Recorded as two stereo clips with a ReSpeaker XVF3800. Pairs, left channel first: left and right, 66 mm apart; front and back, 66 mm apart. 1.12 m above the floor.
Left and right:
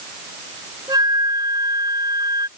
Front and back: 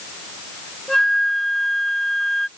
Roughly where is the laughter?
I don't hear laughter.